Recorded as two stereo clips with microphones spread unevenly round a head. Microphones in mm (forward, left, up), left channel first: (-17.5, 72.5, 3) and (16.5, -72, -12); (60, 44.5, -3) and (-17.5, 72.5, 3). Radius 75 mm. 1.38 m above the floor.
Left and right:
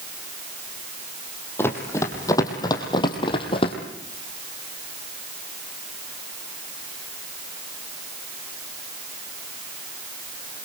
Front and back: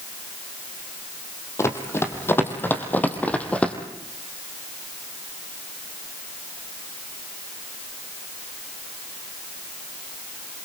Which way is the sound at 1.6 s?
30° left.